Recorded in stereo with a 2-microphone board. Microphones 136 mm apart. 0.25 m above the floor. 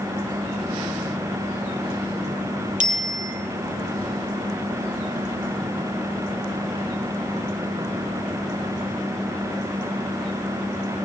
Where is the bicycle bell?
70° right (ahead or behind), 4.5 m.